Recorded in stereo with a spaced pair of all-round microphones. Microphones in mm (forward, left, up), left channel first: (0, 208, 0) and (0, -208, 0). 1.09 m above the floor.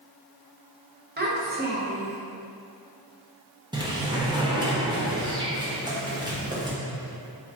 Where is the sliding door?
10° right (ahead or behind), 0.7 m.